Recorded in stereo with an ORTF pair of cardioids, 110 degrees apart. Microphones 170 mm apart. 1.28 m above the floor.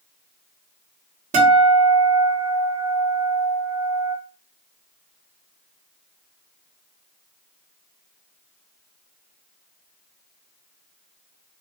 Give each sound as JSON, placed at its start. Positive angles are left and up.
{"t": 1.3, "sound": "a guitar", "azimuth_deg": -40, "distance_m": 1.1}